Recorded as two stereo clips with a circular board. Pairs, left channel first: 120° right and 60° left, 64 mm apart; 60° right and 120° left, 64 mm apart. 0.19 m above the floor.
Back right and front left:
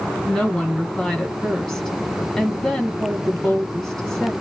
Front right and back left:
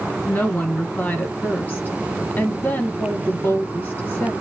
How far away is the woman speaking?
About 1.1 m.